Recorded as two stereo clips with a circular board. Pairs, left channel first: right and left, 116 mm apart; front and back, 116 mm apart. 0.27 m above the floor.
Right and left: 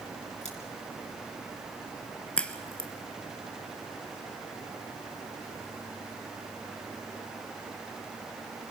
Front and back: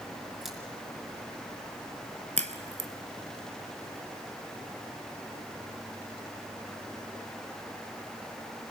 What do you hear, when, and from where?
0.4 s scissors: 90° right, 4.5 m
2.4 s a crack: 170° right, 1.4 m